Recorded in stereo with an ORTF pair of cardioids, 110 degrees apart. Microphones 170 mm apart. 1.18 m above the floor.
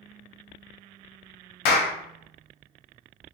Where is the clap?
70° left, 0.5 m.